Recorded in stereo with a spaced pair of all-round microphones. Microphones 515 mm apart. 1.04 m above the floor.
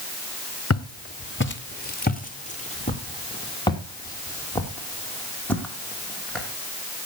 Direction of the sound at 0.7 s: 30° left (ahead or behind).